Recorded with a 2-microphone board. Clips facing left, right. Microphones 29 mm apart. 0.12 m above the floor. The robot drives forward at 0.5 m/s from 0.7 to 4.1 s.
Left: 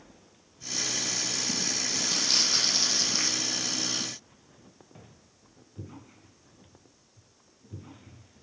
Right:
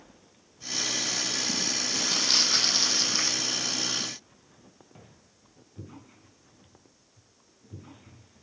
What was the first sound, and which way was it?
Crumpling, 20° right (ahead or behind).